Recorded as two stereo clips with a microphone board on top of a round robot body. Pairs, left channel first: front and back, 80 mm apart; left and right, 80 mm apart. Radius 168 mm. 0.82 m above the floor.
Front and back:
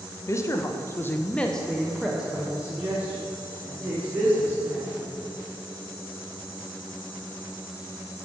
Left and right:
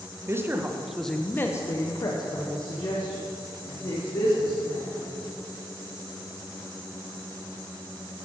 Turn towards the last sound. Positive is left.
turn(degrees=110)